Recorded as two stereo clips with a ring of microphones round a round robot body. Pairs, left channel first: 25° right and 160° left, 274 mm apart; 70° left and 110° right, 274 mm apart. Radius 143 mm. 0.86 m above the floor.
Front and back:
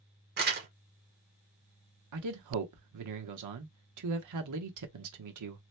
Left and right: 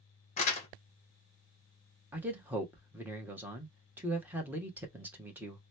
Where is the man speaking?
165° left, 1.1 m.